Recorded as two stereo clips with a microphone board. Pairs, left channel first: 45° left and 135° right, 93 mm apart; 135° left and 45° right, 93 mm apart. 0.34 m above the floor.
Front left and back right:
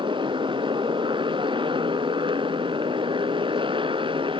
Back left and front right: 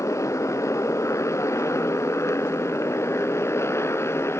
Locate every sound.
0.0 s a motorcycle: 165° right; by 4.4 s 160° right